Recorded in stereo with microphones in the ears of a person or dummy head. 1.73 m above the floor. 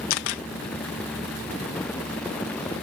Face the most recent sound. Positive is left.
turn(degrees=70)  # may be behind; listen again after turning